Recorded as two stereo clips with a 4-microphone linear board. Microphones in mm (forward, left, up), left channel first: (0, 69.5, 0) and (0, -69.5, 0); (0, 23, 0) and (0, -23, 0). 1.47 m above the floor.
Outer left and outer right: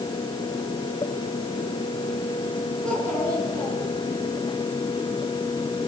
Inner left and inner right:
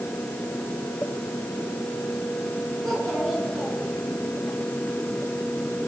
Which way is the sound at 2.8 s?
5° left (ahead or behind).